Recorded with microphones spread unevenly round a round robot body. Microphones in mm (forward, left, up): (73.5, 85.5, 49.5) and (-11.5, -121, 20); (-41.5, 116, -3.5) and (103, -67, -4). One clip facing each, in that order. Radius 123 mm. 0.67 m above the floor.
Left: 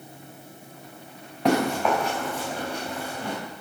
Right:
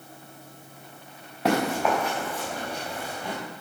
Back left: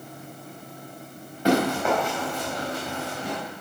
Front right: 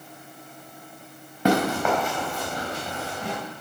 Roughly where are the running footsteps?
Ahead right.